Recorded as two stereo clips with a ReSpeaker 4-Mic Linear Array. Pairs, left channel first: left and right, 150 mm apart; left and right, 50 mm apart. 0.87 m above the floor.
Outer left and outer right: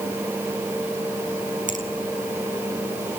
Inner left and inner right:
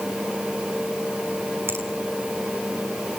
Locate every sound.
1.7 s a finger snap: 55° right (ahead or behind), 5 m